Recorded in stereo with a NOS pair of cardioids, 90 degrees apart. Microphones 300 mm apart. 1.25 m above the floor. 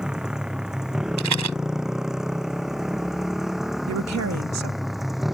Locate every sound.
0.0 s a motorcycle: straight ahead
1.2 s a rattle: 70° right
3.9 s a woman speaking: 60° right